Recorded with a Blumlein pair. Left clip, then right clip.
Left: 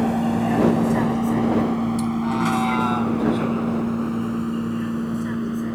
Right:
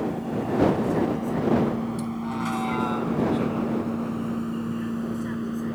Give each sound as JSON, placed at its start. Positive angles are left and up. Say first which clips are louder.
{"t": 0.0, "sound": "a vehicle", "louder": "left 6 dB", "azimuth_deg": 60}